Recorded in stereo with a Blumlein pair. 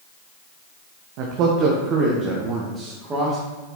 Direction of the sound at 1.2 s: 45° right.